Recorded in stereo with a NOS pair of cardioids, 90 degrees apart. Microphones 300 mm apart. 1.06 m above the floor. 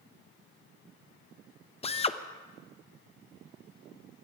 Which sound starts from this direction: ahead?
A drill, at 1.8 s.